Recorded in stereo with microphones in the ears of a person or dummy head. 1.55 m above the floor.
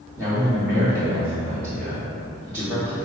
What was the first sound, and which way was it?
A man speaking, 10° left (ahead or behind).